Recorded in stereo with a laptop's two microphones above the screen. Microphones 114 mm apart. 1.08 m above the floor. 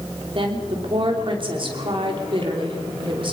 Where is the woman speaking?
50° right (ahead or behind), 3 m.